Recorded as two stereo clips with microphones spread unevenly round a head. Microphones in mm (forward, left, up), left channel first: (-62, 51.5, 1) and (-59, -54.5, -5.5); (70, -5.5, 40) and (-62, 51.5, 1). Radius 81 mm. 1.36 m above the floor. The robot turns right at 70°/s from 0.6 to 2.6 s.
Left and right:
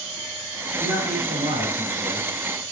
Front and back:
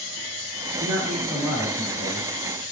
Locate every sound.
0.8 s a man speaking: 140° right, 3 m; by 2.3 s 35° right, 3 m